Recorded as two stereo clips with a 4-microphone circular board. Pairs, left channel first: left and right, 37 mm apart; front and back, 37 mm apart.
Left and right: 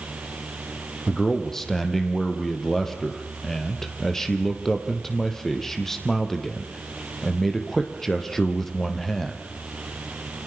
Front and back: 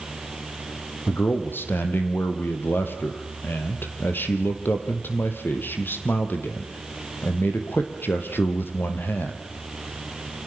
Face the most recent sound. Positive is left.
turn(degrees=10)